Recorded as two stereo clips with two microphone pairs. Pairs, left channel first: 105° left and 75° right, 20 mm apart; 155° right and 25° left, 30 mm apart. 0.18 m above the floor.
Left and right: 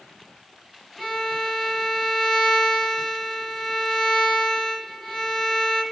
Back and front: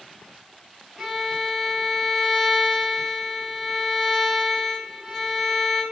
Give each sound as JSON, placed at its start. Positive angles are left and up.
{"t": 1.0, "sound": "a violin", "azimuth_deg": -10, "distance_m": 1.2}